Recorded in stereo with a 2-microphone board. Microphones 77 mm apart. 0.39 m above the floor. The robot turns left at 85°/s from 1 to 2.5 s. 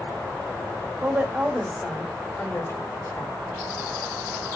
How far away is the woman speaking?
About 1.3 m.